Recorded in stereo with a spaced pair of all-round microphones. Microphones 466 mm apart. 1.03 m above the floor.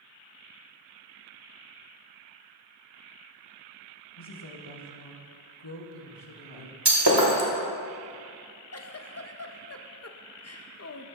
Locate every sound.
4.2 s a woman speaking: 65° left (ahead or behind), 1.5 m
6.8 s breaking glass: 70° right (ahead or behind), 1.6 m
8.7 s a giggle: 35° left (ahead or behind), 0.5 m